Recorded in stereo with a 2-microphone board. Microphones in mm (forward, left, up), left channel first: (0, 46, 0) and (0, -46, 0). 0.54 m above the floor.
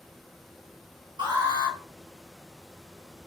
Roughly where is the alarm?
Right.